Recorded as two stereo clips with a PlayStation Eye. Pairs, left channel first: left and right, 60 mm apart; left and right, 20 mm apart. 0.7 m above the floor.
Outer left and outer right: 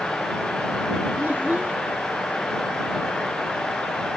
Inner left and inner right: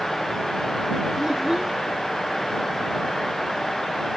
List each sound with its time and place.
1.2 s a child speaking: 30° right (ahead or behind)